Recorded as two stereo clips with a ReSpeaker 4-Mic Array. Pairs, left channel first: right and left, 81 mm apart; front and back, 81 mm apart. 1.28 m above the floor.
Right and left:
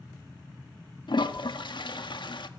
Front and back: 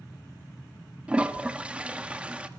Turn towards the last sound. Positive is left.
turn(degrees=-105)